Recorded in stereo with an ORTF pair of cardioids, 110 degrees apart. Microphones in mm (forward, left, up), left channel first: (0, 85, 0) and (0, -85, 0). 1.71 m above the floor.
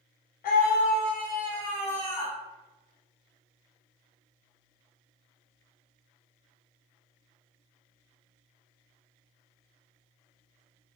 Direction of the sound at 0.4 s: 60° left.